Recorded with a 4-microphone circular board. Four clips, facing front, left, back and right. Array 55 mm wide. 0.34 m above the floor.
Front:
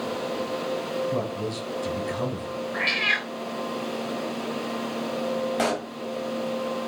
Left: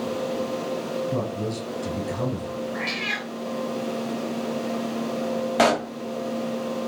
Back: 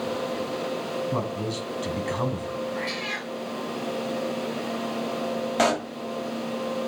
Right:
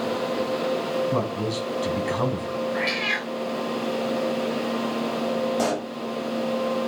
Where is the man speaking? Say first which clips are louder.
Right 2 dB, even; 120° right, 3 m.